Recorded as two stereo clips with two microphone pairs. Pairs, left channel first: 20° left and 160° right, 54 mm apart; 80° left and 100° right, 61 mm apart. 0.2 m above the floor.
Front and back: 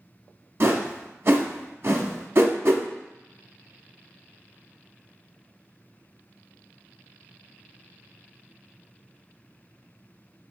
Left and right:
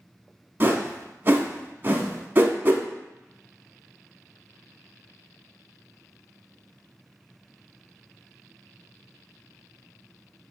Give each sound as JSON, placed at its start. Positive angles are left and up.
{"t": 0.6, "sound": "a whoosh", "azimuth_deg": -140, "distance_m": 0.5}